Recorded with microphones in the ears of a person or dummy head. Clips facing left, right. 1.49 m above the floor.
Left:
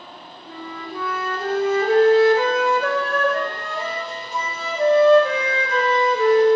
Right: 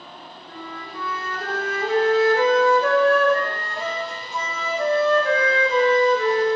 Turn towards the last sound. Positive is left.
turn(degrees=30)  # may be behind; listen again after turning